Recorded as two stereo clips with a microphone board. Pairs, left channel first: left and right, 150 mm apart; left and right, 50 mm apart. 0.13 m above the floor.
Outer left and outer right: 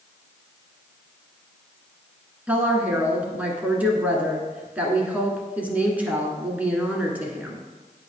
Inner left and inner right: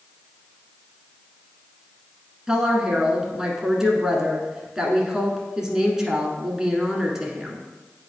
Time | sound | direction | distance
2.5 | a woman speaking | 10° right (ahead or behind) | 1.3 m